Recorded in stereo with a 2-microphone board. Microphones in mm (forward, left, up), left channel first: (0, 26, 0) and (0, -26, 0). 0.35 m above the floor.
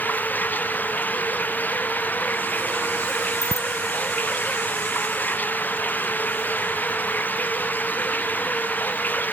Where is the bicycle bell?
85° left.